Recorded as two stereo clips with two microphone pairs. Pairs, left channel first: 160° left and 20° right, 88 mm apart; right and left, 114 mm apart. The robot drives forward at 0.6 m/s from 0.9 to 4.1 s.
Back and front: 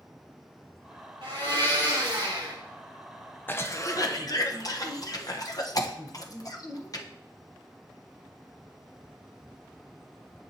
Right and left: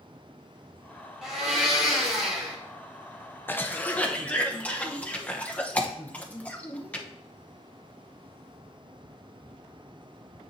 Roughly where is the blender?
Ahead.